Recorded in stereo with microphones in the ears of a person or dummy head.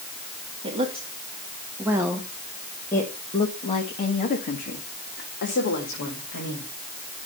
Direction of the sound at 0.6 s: 25° right (ahead or behind).